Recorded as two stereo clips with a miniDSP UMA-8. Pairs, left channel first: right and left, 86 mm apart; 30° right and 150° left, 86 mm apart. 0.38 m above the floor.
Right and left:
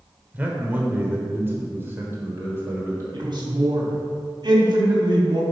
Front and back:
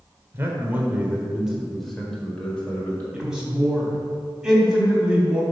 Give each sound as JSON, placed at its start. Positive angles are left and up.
{"t": 0.3, "sound": "a man speaking", "azimuth_deg": 140, "distance_m": 1.4}
{"t": 3.1, "sound": "a man speaking", "azimuth_deg": 70, "distance_m": 2.5}